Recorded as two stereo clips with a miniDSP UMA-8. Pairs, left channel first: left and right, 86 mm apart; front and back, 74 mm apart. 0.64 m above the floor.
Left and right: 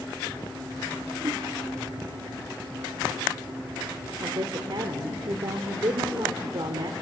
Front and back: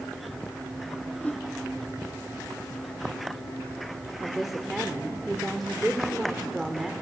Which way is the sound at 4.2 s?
95° right.